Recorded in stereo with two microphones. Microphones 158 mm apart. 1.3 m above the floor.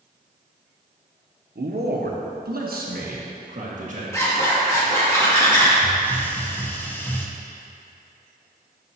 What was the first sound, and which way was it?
A man speaking, 80° right.